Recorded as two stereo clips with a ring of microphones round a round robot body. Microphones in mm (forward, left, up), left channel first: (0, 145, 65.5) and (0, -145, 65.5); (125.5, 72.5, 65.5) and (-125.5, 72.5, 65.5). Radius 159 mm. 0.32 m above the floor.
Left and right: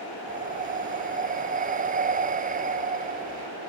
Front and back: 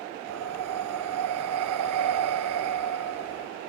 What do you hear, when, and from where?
0.3 s breathing: 155° right